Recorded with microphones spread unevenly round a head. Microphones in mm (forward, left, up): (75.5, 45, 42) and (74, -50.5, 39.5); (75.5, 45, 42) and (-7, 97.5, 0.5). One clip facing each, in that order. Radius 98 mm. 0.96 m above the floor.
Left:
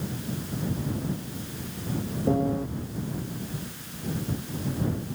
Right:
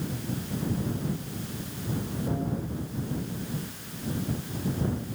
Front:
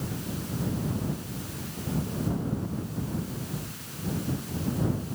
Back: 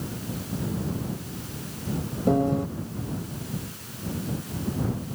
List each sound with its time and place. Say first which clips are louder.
2.3 s a piano: left 9 dB, back 9 dB; 145° left